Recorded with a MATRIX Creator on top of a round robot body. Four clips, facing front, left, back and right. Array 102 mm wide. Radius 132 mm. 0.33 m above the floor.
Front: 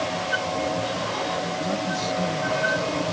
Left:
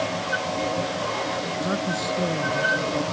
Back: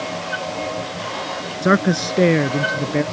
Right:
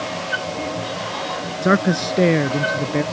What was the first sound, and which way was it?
A man speaking, 145° right.